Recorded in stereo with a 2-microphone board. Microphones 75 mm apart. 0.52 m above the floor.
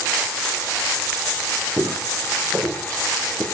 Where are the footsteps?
35° right (ahead or behind), 3 m; by 3.4 s 20° right (ahead or behind), 2.5 m.